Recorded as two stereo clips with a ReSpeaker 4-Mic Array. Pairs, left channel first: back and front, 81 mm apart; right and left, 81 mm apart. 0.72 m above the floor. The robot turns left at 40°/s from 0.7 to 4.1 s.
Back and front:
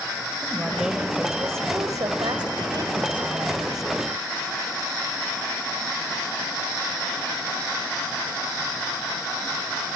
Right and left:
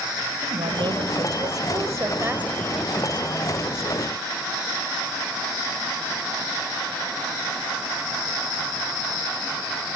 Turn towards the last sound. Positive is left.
turn(degrees=-50)